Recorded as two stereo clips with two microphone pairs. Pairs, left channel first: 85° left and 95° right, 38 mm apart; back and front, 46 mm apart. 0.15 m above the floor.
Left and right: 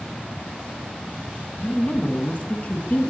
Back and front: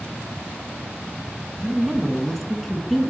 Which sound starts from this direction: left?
A woman speaking, at 1.6 s.